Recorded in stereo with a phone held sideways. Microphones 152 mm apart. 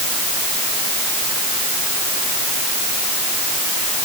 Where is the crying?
No crying in this recording.